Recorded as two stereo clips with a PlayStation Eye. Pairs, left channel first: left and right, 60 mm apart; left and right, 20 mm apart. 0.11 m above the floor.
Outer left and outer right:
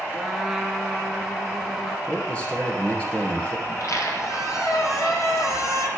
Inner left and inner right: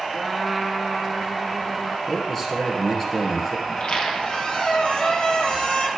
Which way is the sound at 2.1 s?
20° left (ahead or behind).